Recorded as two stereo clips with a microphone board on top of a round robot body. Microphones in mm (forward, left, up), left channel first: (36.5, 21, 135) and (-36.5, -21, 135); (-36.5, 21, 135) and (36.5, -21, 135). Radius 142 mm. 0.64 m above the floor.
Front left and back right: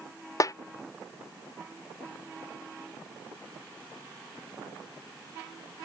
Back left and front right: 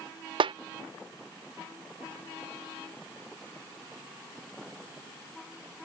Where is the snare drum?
20° right.